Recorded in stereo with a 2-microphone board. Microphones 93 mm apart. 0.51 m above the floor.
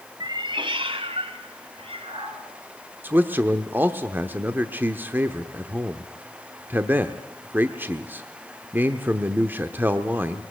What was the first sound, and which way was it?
A cat meowing, 45° right (ahead or behind).